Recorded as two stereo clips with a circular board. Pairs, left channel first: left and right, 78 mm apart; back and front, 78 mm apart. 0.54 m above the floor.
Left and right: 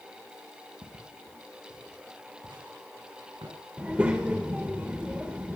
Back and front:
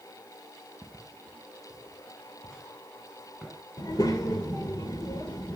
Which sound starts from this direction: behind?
A child speaking, at 3.8 s.